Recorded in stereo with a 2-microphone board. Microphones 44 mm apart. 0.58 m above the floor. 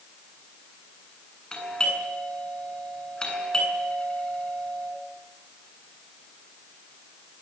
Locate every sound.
1.5 s a doorbell: 15° left (ahead or behind), 8 m